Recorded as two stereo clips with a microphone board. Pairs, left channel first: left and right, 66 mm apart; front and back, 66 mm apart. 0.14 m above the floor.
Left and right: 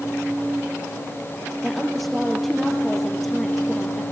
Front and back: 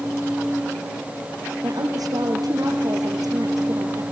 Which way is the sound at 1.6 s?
Straight behind.